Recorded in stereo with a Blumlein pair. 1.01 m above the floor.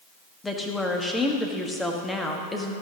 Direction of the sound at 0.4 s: 10° left.